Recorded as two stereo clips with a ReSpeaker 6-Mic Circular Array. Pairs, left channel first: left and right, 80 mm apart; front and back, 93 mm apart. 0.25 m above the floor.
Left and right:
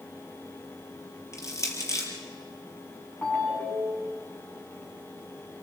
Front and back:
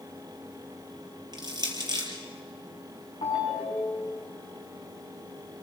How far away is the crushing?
About 4 m.